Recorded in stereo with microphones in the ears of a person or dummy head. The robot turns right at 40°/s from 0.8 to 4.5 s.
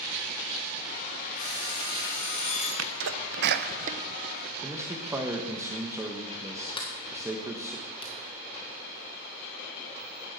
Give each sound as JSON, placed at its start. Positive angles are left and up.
{"t": 1.4, "sound": "an alarm clock", "azimuth_deg": 130, "distance_m": 3.0}
{"t": 2.8, "sound": "a sneeze", "side_deg": -75, "distance_m": 0.9}
{"t": 4.6, "sound": "a man speaking", "side_deg": -5, "distance_m": 1.4}
{"t": 6.8, "sound": "a sliding door", "side_deg": 30, "distance_m": 1.5}